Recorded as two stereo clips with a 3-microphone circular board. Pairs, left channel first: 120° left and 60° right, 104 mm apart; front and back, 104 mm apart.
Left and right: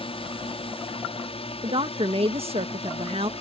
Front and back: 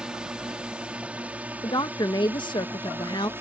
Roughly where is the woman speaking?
Ahead right.